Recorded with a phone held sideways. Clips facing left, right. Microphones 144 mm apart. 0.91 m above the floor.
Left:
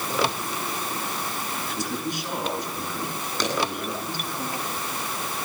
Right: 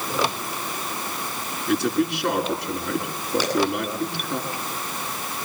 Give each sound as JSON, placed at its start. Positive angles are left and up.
{"t": 1.7, "sound": "a man speaking", "side_deg": -70, "distance_m": 8.5}
{"t": 3.4, "sound": "a clap", "side_deg": -10, "distance_m": 9.0}